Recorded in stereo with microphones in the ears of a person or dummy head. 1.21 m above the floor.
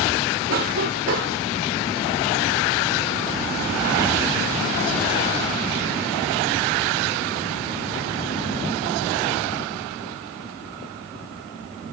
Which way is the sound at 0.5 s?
45° right (ahead or behind).